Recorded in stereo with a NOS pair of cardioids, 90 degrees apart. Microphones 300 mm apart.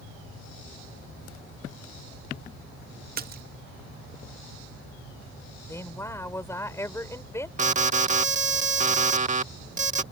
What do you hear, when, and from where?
3.2 s a splash: 35° right
5.7 s a woman speaking: 10° left
7.6 s an alarm: 25° right